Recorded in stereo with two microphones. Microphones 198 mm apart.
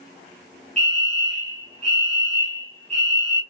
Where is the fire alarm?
35° right (ahead or behind), 1.6 m.